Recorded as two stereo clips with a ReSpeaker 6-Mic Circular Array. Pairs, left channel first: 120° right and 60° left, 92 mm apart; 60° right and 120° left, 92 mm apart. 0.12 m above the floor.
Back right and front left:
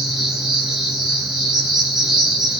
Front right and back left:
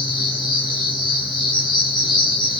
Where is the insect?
25° right, 6.5 m.